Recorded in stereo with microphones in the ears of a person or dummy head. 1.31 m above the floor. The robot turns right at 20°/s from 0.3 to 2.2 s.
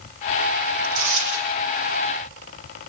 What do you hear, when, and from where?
0.8 s tearing paper: 75° right (ahead or behind), 9 m; by 1.5 s 85° right, 9 m